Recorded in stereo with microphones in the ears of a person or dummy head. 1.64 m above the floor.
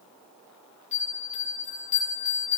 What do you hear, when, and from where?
0.9 s a bell: 35° left (ahead or behind), 7.5 m